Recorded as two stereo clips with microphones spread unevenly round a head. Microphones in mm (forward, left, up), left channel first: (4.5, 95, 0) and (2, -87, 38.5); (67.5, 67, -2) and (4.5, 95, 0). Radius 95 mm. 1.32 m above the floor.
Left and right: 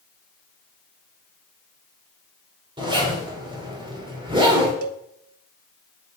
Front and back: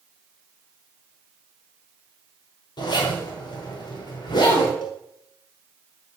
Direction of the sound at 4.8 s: 90° right.